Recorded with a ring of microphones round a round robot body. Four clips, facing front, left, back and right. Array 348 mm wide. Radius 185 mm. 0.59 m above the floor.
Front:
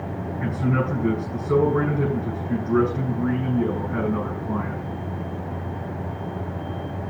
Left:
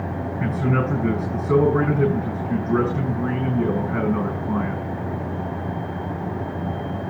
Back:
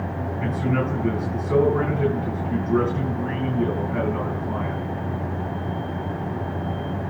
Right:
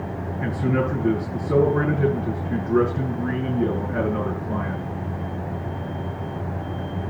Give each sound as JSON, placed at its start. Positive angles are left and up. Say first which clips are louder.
{"t": 0.4, "sound": "a man speaking", "louder": "even, even", "azimuth_deg": 75, "distance_m": 8.5}